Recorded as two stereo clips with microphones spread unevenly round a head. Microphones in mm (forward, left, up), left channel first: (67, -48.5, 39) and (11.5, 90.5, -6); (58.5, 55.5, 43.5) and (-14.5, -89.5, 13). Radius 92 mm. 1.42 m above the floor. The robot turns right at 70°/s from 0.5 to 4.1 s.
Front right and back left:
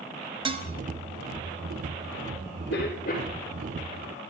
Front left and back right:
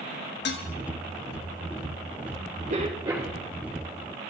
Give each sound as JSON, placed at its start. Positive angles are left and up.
{"t": 0.5, "sound": "dishes clattering", "azimuth_deg": 55, "distance_m": 1.8}
{"t": 2.7, "sound": "a cough", "azimuth_deg": -80, "distance_m": 4.5}